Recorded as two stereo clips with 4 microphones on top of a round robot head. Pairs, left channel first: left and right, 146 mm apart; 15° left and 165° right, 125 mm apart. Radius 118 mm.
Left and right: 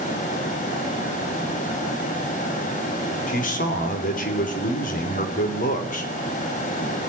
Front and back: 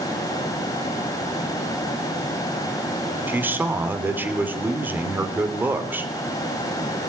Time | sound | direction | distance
3.3 | a man speaking | 120° left | 3 m